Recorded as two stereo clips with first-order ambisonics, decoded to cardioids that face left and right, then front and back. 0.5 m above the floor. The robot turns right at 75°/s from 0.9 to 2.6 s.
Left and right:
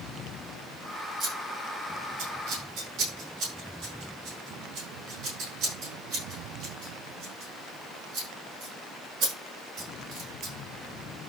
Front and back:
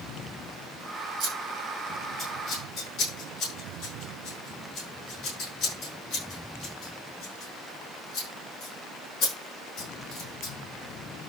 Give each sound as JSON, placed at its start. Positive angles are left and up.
{"t": 1.2, "sound": "scissors", "azimuth_deg": -155, "distance_m": 7.0}